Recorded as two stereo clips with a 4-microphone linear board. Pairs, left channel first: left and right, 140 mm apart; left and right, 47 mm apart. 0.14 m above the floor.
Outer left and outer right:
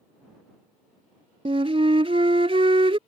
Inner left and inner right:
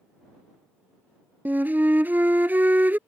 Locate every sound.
1.4 s a flute: 45° right (ahead or behind)